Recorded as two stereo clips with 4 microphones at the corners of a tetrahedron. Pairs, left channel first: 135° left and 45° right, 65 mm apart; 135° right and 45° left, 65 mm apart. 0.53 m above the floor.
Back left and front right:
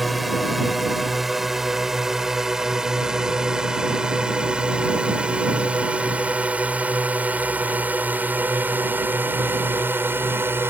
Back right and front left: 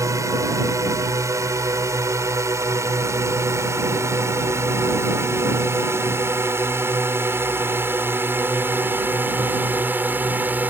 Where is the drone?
45° left; by 10.7 s 5° right.